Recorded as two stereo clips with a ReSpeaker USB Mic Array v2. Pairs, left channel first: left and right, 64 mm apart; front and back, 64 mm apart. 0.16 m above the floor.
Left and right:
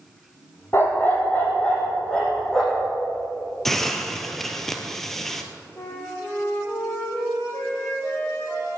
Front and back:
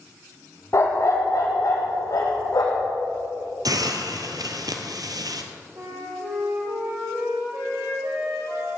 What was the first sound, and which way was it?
A dog barking, 40° left.